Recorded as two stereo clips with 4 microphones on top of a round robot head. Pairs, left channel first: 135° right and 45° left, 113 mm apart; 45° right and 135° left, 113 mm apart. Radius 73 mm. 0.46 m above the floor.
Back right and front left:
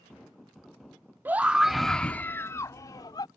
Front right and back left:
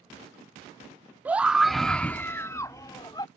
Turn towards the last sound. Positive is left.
turn(degrees=-90)